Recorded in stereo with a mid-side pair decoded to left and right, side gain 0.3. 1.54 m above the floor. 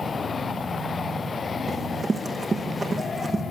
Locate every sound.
0.0 s a machine running: 70° left, 4 m
1.7 s running footsteps: 50° right, 5 m